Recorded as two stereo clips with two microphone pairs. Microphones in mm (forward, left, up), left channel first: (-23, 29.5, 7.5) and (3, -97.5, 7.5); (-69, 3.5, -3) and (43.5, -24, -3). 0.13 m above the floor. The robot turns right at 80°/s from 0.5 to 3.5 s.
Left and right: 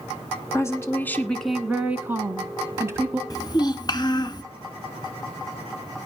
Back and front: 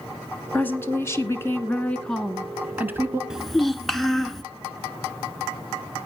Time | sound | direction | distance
0.5 | a woman speaking | 115° left | 1.2 m
3.3 | a child speaking | 65° left | 0.9 m